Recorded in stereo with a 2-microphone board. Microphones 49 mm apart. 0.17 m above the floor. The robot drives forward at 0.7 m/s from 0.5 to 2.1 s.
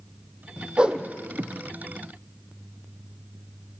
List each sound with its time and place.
0.8 s a whoosh: 20° right (ahead or behind), 1.3 m; by 1.1 s 25° right (ahead or behind), 1.2 m